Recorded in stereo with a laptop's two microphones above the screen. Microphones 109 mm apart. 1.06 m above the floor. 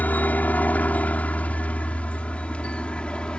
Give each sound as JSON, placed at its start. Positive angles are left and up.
{"t": 0.0, "sound": "a helicopter", "side_deg": 15}